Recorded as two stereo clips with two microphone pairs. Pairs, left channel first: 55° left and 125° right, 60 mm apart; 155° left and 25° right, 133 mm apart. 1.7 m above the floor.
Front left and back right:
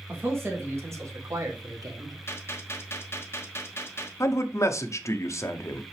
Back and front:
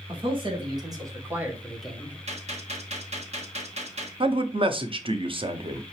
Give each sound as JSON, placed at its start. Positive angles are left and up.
{"t": 0.1, "sound": "a man speaking", "azimuth_deg": -75, "distance_m": 2.5}
{"t": 2.3, "sound": "a gunshot", "azimuth_deg": 5, "distance_m": 1.3}
{"t": 4.2, "sound": "a man speaking", "azimuth_deg": 20, "distance_m": 0.9}